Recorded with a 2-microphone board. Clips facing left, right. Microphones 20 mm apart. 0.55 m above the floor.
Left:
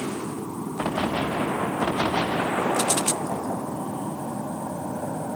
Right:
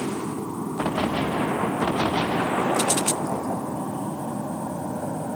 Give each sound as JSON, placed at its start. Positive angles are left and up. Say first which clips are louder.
{"t": 0.0, "sound": "an aircraft", "louder": "right 2 dB", "side_deg": -10}